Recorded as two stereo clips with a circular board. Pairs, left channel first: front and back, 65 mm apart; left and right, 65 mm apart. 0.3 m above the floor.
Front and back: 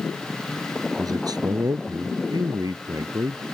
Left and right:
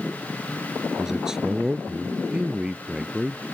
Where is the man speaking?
175° right; by 3.5 s 165° right.